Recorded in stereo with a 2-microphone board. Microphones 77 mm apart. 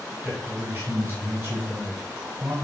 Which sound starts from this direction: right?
A man speaking, at 0.2 s.